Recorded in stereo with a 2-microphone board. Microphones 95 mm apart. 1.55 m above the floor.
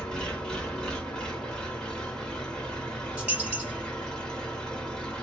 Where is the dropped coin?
15° right (ahead or behind), 1.7 m.